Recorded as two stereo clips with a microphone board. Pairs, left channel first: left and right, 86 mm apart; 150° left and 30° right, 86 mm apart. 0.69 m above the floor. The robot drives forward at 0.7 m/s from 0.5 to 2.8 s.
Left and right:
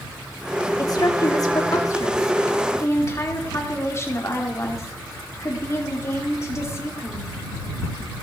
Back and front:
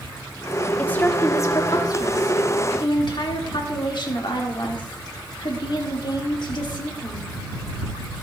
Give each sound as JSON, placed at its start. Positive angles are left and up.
{"t": 0.8, "sound": "a woman speaking", "azimuth_deg": 85, "distance_m": 1.4}